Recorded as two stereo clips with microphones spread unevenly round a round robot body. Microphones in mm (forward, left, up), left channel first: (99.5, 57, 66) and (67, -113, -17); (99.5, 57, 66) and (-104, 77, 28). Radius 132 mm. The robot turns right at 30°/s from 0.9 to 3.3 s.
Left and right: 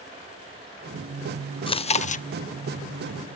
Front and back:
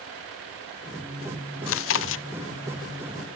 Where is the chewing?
Straight ahead, 0.6 m; by 2.2 s 15° left, 0.6 m.